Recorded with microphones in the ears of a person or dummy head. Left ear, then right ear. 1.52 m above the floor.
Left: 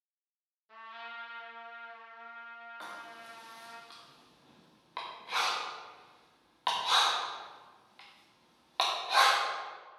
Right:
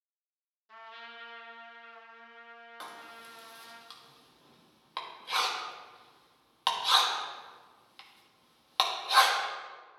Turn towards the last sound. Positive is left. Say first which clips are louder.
# right 2 dB
turn(degrees=-20)  # may be behind; listen again after turning